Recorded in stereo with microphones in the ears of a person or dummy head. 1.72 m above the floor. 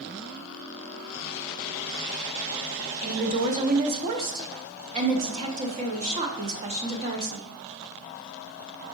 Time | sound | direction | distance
3.0 | a woman speaking | 40° right (ahead or behind) | 0.7 m